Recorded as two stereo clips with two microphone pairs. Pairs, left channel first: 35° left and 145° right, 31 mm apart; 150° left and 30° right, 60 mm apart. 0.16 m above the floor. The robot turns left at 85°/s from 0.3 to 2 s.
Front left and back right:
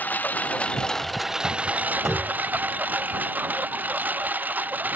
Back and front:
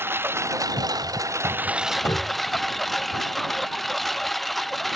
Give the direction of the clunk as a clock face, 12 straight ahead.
8 o'clock.